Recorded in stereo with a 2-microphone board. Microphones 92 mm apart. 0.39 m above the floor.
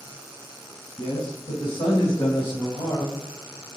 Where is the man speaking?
60° left (ahead or behind), 3 m; by 3.2 s 5° left (ahead or behind), 2.5 m.